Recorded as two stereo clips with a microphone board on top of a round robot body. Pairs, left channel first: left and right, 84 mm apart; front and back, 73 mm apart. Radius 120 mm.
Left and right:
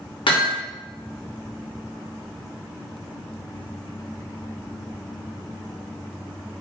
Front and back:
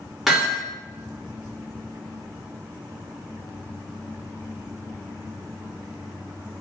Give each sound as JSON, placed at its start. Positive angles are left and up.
{"t": 0.3, "sound": "hammering", "azimuth_deg": 95, "distance_m": 1.4}